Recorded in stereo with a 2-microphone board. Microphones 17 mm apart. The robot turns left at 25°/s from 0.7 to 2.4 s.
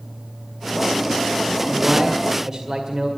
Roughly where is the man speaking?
Right.